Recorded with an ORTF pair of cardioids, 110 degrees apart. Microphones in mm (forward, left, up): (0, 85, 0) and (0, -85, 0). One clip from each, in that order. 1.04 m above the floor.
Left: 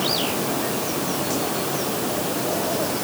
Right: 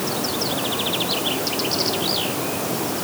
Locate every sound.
Only background noise.